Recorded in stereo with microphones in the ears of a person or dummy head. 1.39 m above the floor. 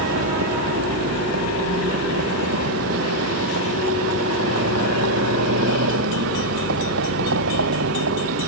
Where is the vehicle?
75° right (ahead or behind).